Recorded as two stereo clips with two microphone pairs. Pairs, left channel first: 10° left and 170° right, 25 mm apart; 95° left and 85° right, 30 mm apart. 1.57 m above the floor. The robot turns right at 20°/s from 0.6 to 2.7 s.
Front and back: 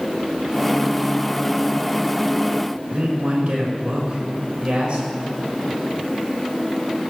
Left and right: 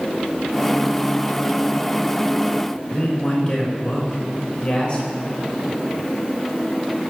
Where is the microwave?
No microwave in this recording.